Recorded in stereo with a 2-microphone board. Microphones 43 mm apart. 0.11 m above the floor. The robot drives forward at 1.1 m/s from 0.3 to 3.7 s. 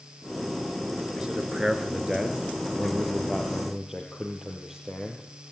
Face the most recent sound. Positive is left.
turn(degrees=-10)  # may be behind; listen again after turning